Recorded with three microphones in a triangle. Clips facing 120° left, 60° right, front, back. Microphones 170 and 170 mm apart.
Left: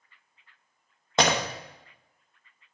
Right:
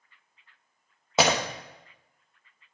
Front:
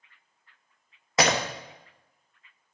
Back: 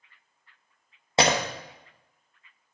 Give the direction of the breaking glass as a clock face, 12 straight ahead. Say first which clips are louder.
Right 1 dB, back 1 dB; 5 o'clock.